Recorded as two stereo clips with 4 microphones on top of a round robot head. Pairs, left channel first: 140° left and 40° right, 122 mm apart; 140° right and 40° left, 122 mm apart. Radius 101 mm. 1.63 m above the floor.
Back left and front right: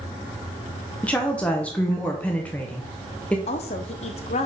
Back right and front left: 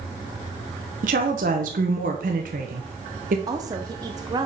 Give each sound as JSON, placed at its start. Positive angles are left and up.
{"t": 1.0, "sound": "a woman speaking", "azimuth_deg": 60, "distance_m": 0.7}
{"t": 3.5, "sound": "a woman speaking", "azimuth_deg": 105, "distance_m": 0.6}